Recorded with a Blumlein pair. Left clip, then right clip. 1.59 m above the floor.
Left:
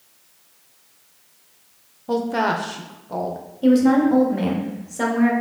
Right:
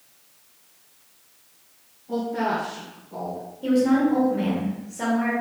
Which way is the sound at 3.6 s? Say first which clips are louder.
Left 4 dB; 70° left.